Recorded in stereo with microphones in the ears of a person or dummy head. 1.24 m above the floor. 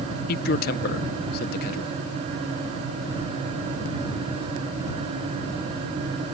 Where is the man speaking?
50° left (ahead or behind).